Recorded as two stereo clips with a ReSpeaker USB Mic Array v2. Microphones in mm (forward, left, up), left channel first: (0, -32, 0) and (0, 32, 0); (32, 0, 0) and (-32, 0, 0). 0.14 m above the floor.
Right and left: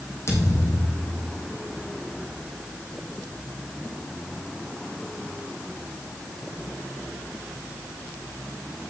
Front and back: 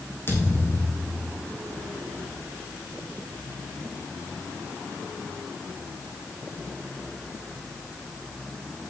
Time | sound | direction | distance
0.3 | a thud | 50° right | 3 m